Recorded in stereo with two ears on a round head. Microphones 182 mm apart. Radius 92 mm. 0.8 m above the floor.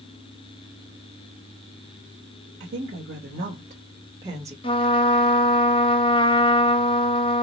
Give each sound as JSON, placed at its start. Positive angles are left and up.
{"t": 2.6, "sound": "a woman speaking", "side_deg": -55, "distance_m": 1.4}
{"t": 4.6, "sound": "a trumpet", "side_deg": 25, "distance_m": 0.8}